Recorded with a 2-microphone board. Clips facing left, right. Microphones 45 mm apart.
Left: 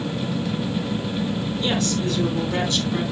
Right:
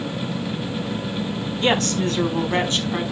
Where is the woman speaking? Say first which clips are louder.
Right 5 dB; 60° right (ahead or behind), 3 m; by 3.0 s 30° right (ahead or behind), 3.5 m.